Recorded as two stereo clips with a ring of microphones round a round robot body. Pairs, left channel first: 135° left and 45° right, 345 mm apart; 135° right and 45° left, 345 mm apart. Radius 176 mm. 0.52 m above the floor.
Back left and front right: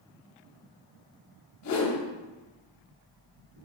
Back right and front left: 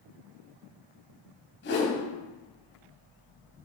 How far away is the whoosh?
About 3 m.